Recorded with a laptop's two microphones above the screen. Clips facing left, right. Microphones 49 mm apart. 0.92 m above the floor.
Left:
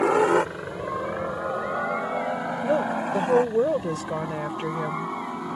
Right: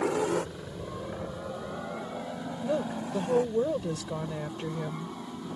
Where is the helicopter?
60° left (ahead or behind); by 5.6 s 70° left (ahead or behind).